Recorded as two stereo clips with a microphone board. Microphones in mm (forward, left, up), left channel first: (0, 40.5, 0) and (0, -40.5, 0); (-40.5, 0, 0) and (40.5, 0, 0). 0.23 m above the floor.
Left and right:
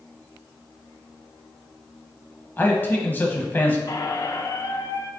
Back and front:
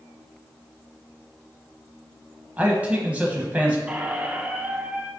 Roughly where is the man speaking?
Ahead left.